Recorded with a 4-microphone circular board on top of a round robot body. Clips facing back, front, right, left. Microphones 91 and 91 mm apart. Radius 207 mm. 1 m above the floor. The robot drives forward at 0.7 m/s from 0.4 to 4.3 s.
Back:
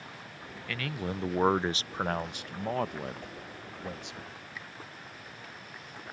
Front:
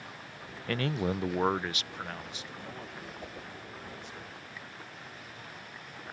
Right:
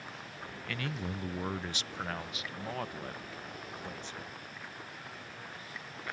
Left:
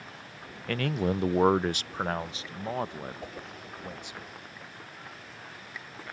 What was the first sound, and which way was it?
A man speaking, 50° left.